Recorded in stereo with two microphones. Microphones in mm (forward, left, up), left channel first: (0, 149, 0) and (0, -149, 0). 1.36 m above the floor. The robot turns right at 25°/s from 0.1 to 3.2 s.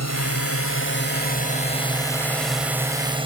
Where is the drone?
120° left; by 3.3 s 165° right.